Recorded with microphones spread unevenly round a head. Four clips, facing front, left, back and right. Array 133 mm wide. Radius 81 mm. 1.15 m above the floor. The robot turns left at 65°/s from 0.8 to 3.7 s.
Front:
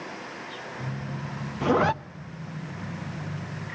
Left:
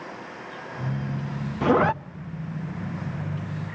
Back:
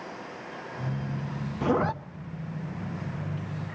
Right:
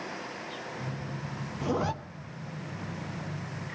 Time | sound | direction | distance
1.6 | a zipper | 75° left | 0.7 m